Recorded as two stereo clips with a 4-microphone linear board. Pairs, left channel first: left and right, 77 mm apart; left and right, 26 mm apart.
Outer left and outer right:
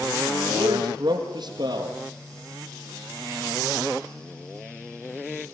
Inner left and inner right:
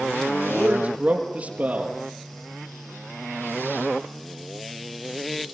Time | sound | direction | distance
0.5 | a man speaking | 70° right (ahead or behind) | 4.5 m